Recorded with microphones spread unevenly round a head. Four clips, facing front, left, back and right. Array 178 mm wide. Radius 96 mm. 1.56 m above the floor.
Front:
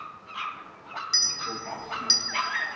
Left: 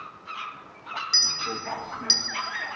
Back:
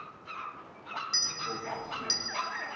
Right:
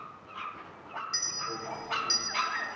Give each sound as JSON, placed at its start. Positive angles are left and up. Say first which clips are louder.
{"t": 1.1, "sound": "a clink", "louder": "left 5 dB, front 2 dB", "azimuth_deg": 70, "distance_m": 1.5}